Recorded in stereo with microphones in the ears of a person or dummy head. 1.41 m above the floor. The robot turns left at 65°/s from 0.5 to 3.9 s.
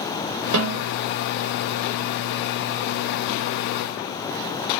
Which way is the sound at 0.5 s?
70° right (ahead or behind).